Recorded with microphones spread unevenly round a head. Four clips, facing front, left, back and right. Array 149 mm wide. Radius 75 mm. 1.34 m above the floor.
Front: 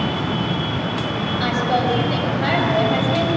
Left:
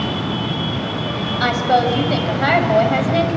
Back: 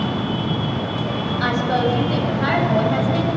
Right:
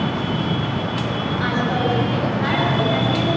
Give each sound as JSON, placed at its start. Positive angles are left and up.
{"t": 1.4, "sound": "a woman speaking", "azimuth_deg": 80, "distance_m": 6.5}